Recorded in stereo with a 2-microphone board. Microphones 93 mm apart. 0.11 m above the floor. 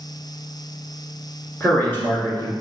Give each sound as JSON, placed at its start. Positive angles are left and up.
{"t": 1.6, "sound": "a man speaking", "side_deg": 20, "distance_m": 1.4}